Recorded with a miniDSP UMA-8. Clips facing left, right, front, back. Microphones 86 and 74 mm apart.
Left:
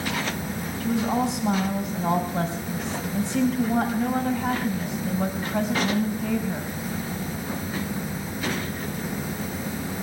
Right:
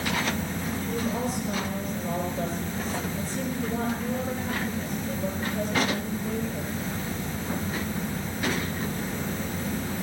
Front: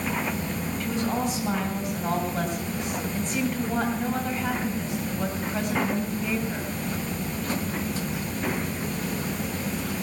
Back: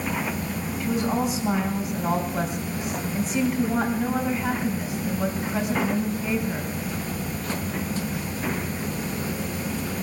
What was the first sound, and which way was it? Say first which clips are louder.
A woman speaking: left 7 dB, back 3 dB; 95° left.